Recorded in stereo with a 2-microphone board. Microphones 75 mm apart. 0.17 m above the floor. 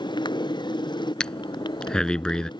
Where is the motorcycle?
85° left.